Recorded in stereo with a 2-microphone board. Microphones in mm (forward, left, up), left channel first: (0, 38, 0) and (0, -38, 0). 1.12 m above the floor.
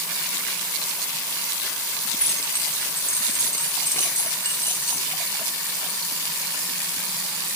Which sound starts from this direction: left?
Keys jangling, at 2.1 s.